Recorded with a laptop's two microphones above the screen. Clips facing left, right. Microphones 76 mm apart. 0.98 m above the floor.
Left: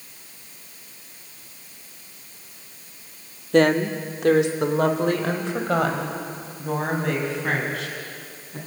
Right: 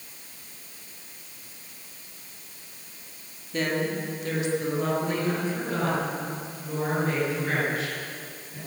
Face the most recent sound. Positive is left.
turn(degrees=75)  # may be behind; listen again after turning